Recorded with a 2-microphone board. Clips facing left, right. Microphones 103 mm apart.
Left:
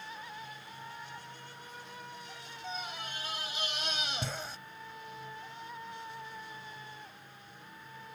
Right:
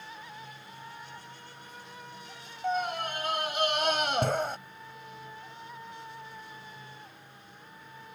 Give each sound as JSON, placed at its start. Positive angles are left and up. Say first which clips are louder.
{"t": 2.6, "sound": "a scream", "louder": "right 12 dB", "side_deg": -60}